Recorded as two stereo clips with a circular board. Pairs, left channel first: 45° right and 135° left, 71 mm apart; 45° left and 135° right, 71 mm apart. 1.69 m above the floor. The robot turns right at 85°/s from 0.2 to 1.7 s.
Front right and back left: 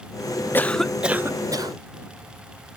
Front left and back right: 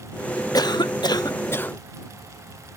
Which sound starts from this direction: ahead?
A cough, at 0.5 s.